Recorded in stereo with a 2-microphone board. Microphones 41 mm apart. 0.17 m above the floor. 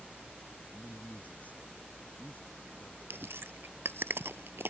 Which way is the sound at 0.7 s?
35° left (ahead or behind).